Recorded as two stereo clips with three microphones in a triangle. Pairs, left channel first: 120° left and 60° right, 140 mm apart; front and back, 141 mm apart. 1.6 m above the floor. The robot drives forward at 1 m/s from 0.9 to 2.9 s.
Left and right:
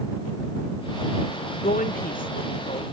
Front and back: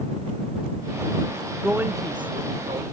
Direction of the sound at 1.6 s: 95° left.